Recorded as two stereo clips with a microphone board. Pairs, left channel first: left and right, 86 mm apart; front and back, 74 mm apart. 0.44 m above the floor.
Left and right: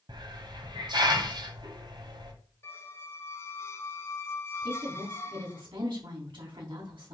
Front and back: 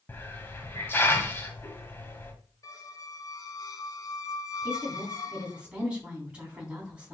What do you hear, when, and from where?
0.1 s a hiss: 60° right, 1.5 m
2.6 s a squeak: 30° left, 0.9 m
4.6 s a woman speaking: 105° right, 4 m